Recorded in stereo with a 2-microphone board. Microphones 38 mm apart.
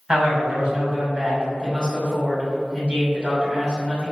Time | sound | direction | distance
0.1 | a man speaking | 25° right (ahead or behind) | 2.0 m